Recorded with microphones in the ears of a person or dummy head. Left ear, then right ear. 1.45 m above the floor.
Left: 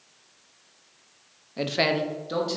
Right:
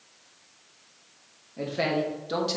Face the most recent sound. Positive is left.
turn(degrees=-20)  # may be behind; listen again after turning